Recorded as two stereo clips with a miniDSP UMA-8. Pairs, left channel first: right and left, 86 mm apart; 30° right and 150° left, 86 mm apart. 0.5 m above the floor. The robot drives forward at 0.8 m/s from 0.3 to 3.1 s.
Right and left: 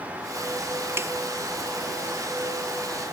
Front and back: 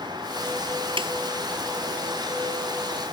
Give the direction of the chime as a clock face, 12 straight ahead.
I don't hear a chime.